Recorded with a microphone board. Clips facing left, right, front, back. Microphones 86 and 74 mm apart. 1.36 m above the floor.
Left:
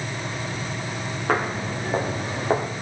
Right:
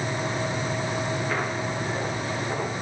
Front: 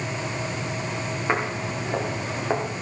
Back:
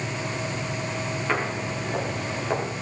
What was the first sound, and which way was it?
Footsteps, 65° left.